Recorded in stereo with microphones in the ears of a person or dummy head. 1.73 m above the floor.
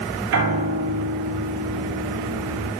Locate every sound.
0.3 s a piano: 80° right, 6 m